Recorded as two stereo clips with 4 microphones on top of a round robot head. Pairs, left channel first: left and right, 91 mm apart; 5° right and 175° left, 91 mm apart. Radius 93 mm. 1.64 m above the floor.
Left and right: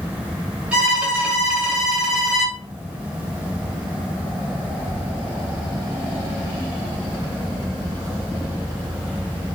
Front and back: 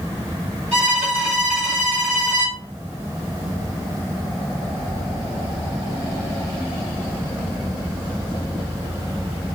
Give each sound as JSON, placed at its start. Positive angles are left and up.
{"t": 0.7, "sound": "a violin", "azimuth_deg": -165, "distance_m": 1.1}